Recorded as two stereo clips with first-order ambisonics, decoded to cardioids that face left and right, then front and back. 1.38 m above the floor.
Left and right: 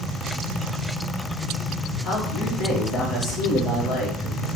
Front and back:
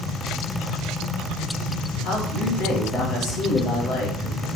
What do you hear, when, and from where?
2.0 s a man speaking: 40° left, 1.1 m